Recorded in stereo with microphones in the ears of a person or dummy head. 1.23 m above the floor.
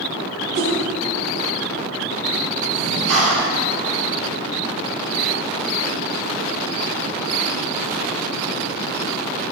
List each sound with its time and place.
0.6 s a whoosh: 55° right (ahead or behind), 2 m
2.7 s breathing: 80° right, 2.5 m